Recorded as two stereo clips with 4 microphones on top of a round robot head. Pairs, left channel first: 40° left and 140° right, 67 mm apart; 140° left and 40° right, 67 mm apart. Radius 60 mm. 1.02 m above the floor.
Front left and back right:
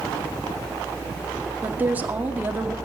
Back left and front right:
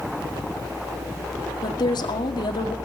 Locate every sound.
1.6 s a woman speaking: 150° left, 2 m